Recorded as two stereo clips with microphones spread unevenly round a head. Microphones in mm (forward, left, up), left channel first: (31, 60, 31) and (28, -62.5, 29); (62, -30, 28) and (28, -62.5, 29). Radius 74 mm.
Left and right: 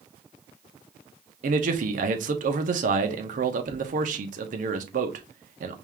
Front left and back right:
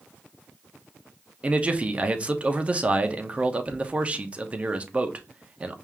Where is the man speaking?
75° right, 1.0 m.